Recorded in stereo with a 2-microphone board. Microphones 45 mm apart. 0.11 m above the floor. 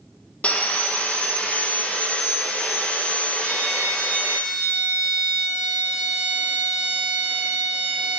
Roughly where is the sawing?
Left.